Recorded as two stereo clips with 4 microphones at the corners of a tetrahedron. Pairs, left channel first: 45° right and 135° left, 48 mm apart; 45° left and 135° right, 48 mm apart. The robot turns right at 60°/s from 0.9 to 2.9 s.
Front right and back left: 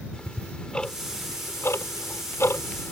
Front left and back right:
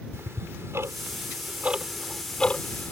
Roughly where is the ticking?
Behind right.